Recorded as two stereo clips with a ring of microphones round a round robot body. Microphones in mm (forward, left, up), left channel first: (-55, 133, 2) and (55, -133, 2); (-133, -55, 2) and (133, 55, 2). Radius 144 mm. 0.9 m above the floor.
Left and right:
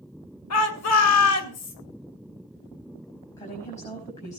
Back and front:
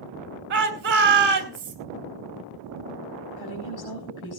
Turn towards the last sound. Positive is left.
turn(degrees=180)